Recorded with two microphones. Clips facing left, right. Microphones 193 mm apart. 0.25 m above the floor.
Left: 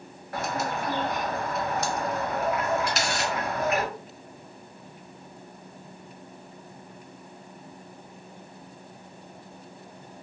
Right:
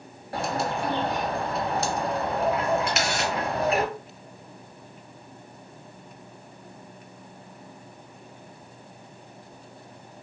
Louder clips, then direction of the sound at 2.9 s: Right 2 dB; 35° left (ahead or behind).